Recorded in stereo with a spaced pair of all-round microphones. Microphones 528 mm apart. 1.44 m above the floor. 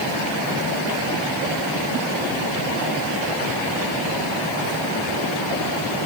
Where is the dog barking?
No dog barking in this recording.